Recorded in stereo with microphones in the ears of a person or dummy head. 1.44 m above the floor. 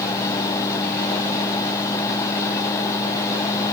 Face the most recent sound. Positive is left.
turn(degrees=15)  # may be behind; listen again after turning